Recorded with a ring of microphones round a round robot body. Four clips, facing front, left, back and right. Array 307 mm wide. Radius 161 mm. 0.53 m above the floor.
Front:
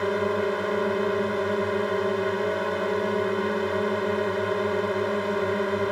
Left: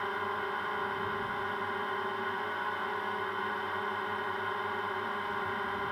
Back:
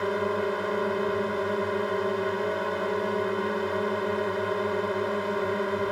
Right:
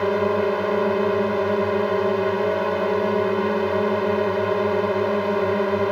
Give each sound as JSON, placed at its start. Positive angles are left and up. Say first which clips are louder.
{"t": 0.0, "sound": "a drone", "louder": "right 14 dB, front 2 dB", "azimuth_deg": -85}